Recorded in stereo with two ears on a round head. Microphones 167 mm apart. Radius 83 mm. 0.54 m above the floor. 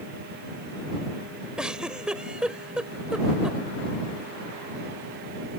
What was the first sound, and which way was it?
A giggle, 5° right (ahead or behind).